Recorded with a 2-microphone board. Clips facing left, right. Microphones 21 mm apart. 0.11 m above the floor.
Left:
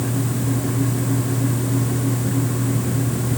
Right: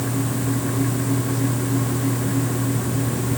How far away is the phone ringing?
No phone ringing in this recording.